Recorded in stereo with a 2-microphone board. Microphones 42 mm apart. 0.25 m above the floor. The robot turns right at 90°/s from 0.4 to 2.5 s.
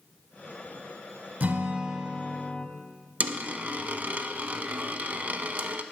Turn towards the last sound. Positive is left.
turn(degrees=-45)  # may be behind; listen again after turning